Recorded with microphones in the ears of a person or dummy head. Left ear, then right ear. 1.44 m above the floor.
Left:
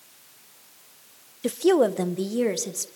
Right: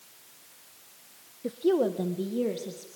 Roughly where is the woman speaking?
Left.